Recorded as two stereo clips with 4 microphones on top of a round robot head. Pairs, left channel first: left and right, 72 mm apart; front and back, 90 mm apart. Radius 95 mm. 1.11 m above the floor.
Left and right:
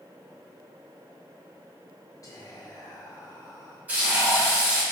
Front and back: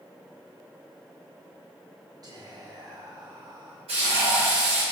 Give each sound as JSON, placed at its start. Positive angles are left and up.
{"t": 2.2, "sound": "whispering", "azimuth_deg": 135, "distance_m": 1.3}
{"t": 3.9, "sound": "frying", "azimuth_deg": -155, "distance_m": 1.8}